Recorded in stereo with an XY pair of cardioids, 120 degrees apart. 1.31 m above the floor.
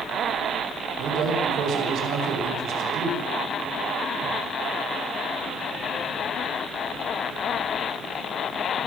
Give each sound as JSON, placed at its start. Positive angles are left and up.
{"t": 1.0, "sound": "a man speaking", "azimuth_deg": -65, "distance_m": 7.0}